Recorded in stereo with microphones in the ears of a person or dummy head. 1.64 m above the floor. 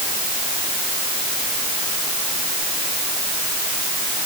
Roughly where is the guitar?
No guitar in this recording.